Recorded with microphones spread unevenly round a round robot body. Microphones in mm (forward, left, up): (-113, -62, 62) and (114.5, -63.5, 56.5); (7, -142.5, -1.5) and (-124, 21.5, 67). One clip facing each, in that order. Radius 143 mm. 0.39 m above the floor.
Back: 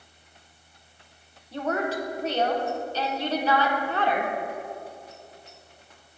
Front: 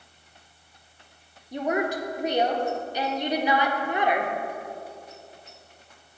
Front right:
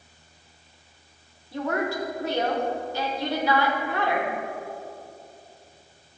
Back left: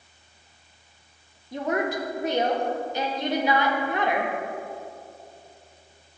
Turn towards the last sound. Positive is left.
turn(degrees=40)